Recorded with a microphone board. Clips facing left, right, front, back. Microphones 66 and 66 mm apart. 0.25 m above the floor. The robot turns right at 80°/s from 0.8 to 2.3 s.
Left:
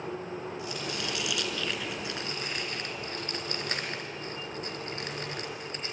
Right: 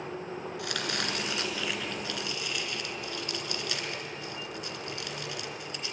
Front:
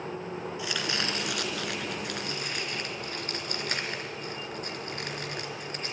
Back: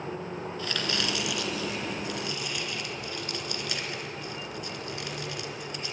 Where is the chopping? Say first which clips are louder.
Right 2 dB, back 1 dB; 75° right, 2.5 m; by 5.9 s 45° left, 2.5 m.